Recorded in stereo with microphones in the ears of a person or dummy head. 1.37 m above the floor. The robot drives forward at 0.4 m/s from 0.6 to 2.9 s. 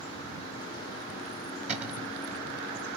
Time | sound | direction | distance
1.7 | a cupboard door | 10° right (ahead or behind) | 1.1 m